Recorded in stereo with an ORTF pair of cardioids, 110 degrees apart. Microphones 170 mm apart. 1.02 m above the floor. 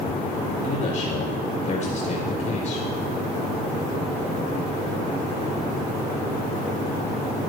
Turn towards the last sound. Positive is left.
turn(degrees=45)